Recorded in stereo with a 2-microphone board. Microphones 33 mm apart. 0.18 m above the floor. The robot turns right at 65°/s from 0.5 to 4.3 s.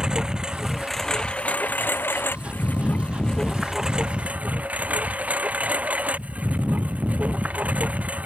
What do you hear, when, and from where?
0.0 s a lawn mower: 20° right; by 8.3 s 135° right